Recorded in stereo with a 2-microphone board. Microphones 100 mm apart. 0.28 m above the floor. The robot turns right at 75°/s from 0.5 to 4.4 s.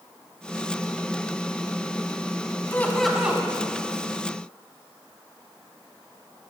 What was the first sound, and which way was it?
Laughter, 150° left.